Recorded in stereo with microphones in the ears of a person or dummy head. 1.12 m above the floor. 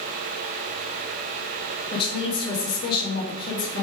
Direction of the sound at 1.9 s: 30° left (ahead or behind).